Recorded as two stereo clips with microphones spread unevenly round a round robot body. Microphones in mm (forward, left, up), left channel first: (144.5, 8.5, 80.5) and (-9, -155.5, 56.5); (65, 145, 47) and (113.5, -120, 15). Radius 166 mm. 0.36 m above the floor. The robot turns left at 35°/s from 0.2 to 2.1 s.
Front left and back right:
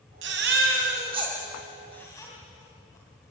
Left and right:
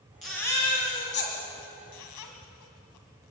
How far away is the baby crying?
About 2.5 m.